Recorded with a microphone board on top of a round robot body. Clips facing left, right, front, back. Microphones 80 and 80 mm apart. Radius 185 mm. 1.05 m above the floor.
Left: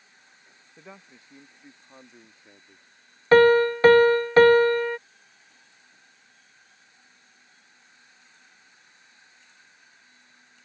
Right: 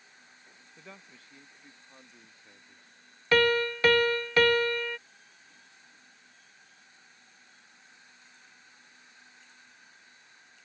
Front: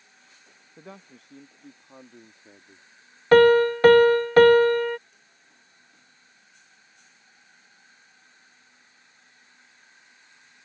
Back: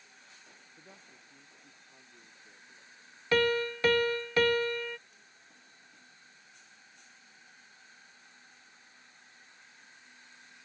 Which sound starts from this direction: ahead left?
A piano, at 3.3 s.